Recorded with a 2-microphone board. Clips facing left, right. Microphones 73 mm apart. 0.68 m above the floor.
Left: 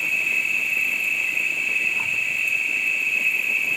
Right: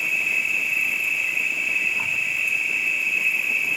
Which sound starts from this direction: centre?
An insect, at 0.0 s.